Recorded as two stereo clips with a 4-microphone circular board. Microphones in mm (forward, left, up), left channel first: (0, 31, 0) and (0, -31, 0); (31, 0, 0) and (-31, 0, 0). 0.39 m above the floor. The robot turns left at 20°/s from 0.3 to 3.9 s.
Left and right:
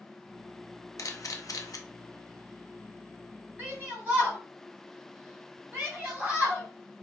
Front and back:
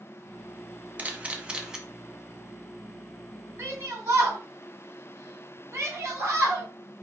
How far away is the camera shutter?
About 0.6 m.